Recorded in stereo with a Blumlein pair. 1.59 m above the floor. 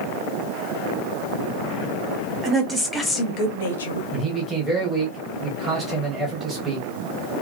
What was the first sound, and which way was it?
A woman speaking, 15° right.